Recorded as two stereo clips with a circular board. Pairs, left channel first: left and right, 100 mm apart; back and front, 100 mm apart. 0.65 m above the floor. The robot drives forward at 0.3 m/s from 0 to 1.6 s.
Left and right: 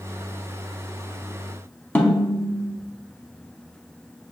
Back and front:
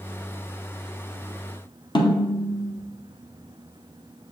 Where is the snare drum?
160° left, 0.8 m.